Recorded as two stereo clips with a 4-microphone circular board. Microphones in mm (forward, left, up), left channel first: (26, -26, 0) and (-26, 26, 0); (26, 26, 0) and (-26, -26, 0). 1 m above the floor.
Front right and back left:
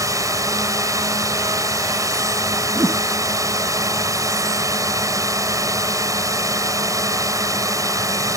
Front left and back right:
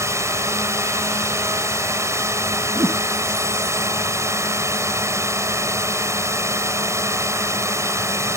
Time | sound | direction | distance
0.0 | a drone | 175° left | ?
2.8 | a whoosh | 175° right | ?